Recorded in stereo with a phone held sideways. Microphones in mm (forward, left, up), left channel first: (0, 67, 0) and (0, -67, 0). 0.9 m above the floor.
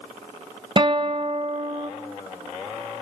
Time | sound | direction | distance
0.8 | a guitar | 40° right (ahead or behind) | 0.9 m